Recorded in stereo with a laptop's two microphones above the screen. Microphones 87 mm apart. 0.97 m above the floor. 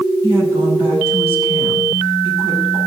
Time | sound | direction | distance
0.2 | a woman speaking | 30° right (ahead or behind) | 7.5 m